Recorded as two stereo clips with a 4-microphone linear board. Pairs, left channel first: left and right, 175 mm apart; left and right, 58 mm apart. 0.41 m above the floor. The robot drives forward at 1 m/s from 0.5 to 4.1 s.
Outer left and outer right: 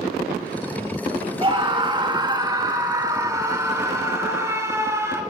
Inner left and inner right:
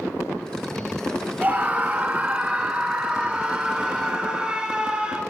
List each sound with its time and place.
1.4 s a scream: 30° right (ahead or behind), 2.5 m; by 5.2 s 15° right (ahead or behind), 5 m